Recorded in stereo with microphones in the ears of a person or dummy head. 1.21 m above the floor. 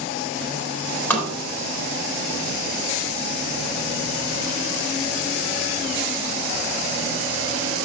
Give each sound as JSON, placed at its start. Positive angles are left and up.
{"t": 1.1, "sound": "tapping", "side_deg": 15, "distance_m": 4.0}